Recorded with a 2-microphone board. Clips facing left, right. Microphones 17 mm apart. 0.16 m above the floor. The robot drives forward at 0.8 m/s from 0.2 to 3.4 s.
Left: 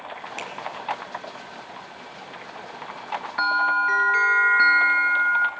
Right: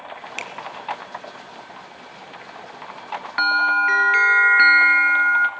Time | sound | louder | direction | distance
0.4 | a finger snap | right 4 dB | 25° right (ahead or behind) | 1.6 m
3.4 | a bell | right 3 dB | 35° right (ahead or behind) | 0.7 m